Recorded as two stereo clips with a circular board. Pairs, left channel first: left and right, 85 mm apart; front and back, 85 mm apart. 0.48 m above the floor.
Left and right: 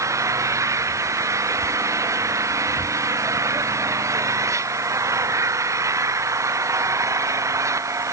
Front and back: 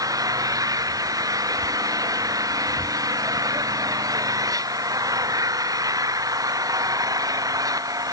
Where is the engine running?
140° right.